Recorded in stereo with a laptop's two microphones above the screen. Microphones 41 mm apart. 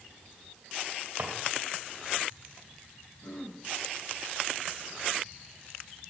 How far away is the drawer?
About 1.8 m.